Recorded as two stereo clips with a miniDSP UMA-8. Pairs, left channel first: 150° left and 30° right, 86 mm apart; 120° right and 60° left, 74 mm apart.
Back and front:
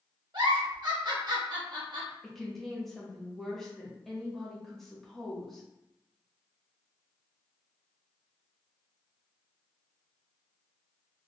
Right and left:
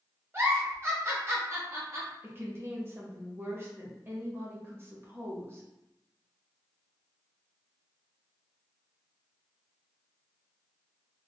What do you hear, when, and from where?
0.3 s a giggle: 5° left, 1.1 m
2.2 s a woman speaking: 65° left, 0.9 m